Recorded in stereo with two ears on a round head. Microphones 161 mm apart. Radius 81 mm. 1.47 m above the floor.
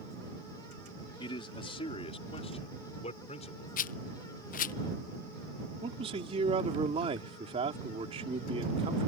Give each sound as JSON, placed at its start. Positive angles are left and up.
{"t": 1.2, "sound": "a man speaking", "side_deg": 30}
{"t": 3.8, "sound": "a rattle", "side_deg": 50}
{"t": 5.8, "sound": "a man speaking", "side_deg": -35}